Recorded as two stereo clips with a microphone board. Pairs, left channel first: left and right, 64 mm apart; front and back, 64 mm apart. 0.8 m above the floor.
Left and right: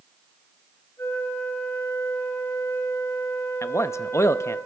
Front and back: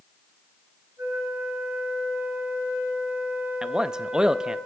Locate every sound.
1.0 s a flute: 135° left, 6.5 m
3.6 s a man speaking: 105° left, 0.6 m